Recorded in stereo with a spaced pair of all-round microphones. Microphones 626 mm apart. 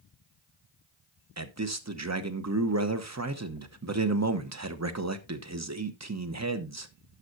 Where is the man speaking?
25° right (ahead or behind), 0.9 m.